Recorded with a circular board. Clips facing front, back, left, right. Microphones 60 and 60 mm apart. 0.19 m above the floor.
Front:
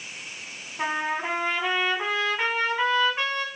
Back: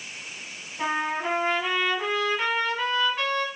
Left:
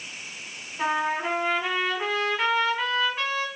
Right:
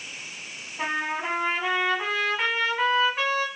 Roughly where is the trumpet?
Ahead right.